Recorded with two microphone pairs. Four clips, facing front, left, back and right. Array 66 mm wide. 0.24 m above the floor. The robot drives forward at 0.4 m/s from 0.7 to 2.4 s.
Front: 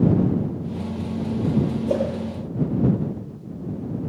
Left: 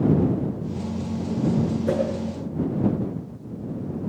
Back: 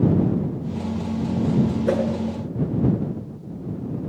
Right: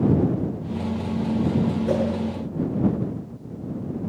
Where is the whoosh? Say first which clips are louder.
Left 1 dB, back 1 dB; 160° left, 7.5 m.